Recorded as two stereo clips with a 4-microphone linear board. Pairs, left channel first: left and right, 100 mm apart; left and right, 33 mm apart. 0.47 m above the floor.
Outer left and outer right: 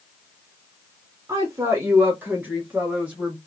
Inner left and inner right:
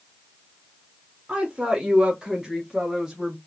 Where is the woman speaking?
35° right (ahead or behind), 1.0 m; by 3.4 s 10° right (ahead or behind), 2 m.